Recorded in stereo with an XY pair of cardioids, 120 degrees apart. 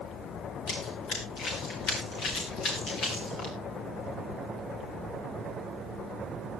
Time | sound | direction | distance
0.7 | running footsteps | 65° left | 5.5 m